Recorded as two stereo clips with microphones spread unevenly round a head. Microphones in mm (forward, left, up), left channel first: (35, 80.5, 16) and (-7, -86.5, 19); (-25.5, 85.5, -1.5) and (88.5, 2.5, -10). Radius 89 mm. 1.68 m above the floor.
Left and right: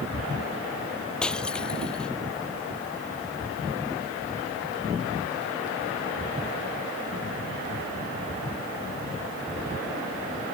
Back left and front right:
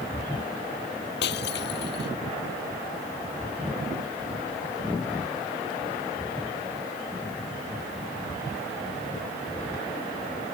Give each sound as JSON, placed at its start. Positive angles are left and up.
{"t": 1.2, "sound": "breaking glass", "azimuth_deg": 160}